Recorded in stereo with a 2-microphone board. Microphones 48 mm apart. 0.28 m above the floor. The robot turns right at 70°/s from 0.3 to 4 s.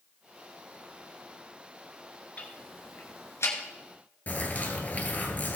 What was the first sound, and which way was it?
Ticking, 35° left (ahead or behind).